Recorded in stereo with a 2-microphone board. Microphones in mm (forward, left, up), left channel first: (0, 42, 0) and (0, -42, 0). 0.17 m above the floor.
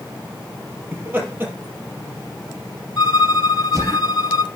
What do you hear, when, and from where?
0.9 s laughter: 20° right (ahead or behind), 5 m; by 4.0 s 40° right (ahead or behind), 5.5 m
3.0 s a violin: 55° left (ahead or behind), 0.6 m